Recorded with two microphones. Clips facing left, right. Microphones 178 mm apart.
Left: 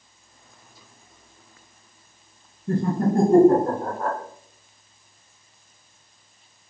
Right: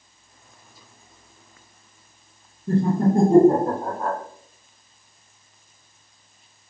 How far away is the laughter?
About 1.3 m.